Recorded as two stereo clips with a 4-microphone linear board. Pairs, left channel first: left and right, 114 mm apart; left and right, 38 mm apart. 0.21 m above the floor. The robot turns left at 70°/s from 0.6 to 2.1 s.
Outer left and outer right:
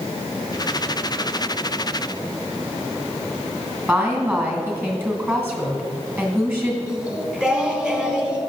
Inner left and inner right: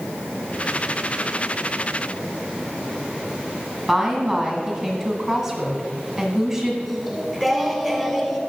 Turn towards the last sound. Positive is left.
turn(degrees=-5)  # may be behind; listen again after turning